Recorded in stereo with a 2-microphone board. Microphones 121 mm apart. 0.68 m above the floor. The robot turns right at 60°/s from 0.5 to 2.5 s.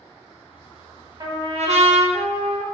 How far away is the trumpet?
About 0.7 m.